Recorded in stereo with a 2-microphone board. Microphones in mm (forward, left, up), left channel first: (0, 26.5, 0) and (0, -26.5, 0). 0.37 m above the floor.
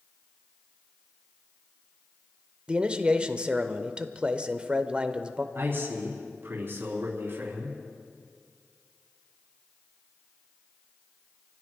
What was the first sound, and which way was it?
A man speaking, 20° right (ahead or behind).